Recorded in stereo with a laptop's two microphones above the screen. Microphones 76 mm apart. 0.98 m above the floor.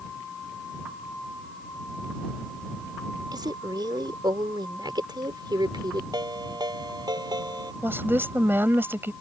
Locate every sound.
3.3 s a woman speaking: 70° right (ahead or behind); by 6.0 s 80° right
6.1 s a ringtone: 65° right (ahead or behind)
7.8 s a woman speaking: 30° right (ahead or behind)